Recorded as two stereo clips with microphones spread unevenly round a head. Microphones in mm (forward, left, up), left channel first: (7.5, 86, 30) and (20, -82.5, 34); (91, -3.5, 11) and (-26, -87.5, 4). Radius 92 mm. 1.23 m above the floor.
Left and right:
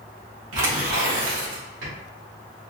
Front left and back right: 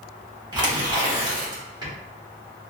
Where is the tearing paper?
85° right, 1.5 m.